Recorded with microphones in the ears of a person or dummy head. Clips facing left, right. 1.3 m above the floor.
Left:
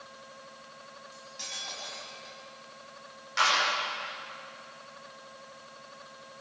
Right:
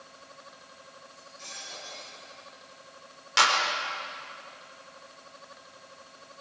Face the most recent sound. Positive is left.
turn(degrees=-75)  # may be behind; listen again after turning